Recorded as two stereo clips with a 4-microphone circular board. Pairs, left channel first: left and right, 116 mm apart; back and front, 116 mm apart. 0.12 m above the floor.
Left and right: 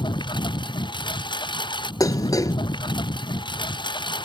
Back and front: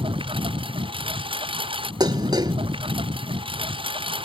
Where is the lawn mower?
40° left.